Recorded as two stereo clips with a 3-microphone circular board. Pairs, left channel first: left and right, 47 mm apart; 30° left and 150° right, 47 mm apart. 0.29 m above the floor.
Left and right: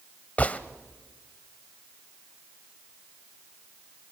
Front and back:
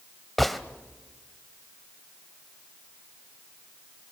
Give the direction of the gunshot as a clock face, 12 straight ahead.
8 o'clock.